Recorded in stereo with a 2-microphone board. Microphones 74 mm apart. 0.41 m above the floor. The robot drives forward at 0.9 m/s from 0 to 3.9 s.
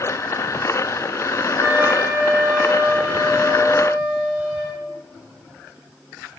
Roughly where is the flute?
Right.